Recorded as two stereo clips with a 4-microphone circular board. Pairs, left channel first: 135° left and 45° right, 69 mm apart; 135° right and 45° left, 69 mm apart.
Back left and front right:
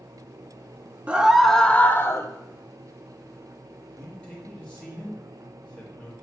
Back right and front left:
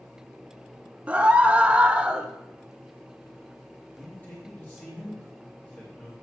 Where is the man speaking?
170° right, 1.0 m.